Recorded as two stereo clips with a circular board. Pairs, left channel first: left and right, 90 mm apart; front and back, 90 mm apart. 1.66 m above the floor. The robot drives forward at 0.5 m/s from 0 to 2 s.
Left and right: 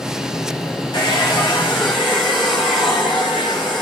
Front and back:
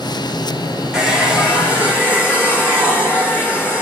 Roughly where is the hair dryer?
Left.